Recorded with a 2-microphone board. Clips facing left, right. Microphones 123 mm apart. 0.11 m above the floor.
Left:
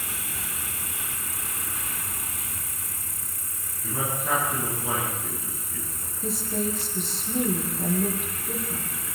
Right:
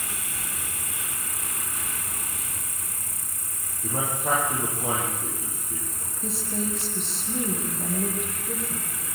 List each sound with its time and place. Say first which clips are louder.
0.0 s an insect: even; 45° right (ahead or behind), 1.5 m
3.8 s a man speaking: right 2 dB; 55° right (ahead or behind), 9.5 m
6.2 s a woman speaking: left 2 dB; centre (ahead or behind), 5.5 m